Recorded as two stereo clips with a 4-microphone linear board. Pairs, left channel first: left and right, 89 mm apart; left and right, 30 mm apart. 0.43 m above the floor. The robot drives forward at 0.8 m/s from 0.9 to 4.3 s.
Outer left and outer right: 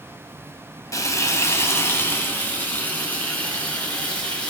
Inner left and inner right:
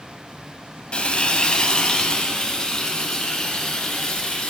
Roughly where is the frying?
Left.